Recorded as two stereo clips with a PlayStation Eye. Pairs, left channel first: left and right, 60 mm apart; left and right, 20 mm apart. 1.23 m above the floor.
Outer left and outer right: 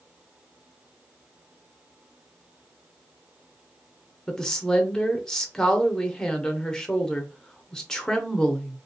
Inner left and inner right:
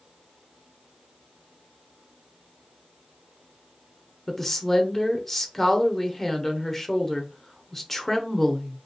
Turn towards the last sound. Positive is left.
turn(degrees=10)  # may be behind; listen again after turning